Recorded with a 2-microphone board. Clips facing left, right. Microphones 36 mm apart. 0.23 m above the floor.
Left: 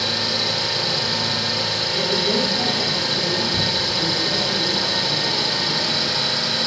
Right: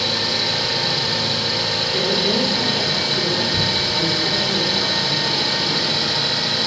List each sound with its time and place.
0.0 s an engine running: 20° right (ahead or behind), 2 m
1.9 s a woman speaking: 40° right (ahead or behind), 2 m